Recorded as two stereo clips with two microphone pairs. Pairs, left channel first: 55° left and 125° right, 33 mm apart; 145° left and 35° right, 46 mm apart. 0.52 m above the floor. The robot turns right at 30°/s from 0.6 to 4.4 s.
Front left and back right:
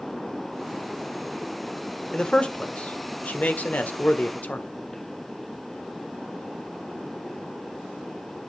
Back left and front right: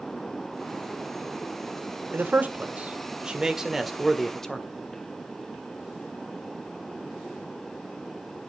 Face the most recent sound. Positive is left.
turn(degrees=65)